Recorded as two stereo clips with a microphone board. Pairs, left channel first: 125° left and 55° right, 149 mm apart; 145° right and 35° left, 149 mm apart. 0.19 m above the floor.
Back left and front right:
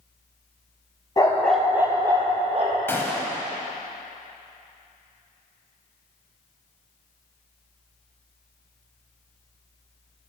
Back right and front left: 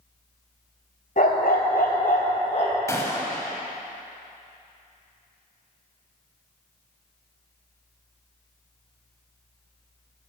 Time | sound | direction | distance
1.2 | a dog barking | 170° right | 1.2 m
2.9 | a gunshot | 175° left | 1.1 m